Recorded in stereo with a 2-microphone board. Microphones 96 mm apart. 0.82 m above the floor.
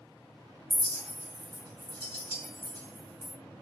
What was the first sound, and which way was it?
A clink, 20° left (ahead or behind).